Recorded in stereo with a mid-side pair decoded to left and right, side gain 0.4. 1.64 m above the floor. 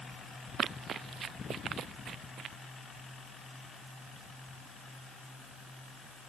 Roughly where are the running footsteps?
Ahead right.